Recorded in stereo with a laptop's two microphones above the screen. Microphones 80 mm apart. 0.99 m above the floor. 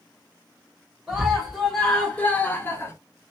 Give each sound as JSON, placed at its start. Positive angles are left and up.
{"t": 1.1, "sound": "a scream", "side_deg": -5, "distance_m": 1.0}